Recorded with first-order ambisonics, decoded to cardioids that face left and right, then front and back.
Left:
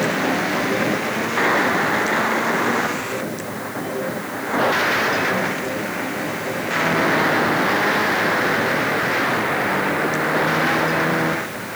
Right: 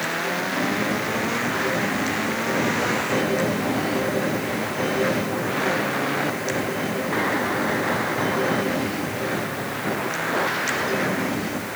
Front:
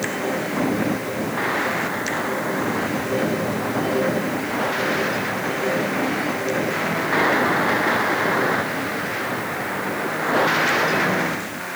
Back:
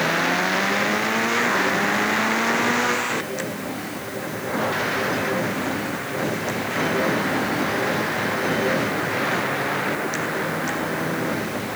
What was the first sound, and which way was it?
Only background noise.